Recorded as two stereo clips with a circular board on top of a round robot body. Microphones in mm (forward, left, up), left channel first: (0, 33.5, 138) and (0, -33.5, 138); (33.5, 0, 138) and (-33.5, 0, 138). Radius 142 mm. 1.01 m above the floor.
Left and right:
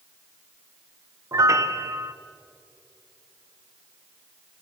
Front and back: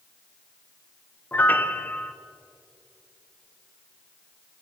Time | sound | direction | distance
1.3 | a piano | 60° right | 1.3 m